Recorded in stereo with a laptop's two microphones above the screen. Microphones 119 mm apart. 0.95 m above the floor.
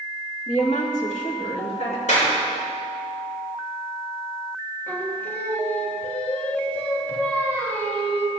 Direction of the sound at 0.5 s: 65° left (ahead or behind).